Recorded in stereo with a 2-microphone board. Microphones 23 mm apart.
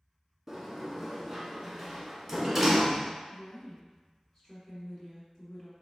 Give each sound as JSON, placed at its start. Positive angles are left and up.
{"t": 0.5, "sound": "a sliding door", "side_deg": -15, "distance_m": 0.8}
{"t": 3.3, "sound": "a woman speaking", "side_deg": 10, "distance_m": 1.9}